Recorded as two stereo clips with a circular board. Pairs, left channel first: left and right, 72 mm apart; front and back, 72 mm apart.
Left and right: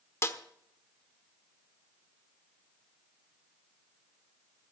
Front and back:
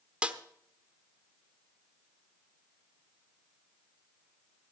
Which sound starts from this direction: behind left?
A snare drum, at 0.2 s.